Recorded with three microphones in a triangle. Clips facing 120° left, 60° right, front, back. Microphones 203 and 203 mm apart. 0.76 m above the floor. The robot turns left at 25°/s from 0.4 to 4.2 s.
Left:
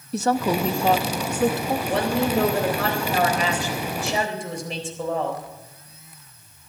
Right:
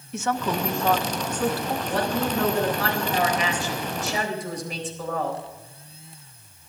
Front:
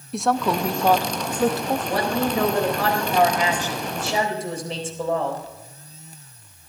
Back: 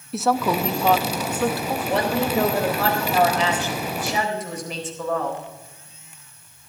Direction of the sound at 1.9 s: 115° left.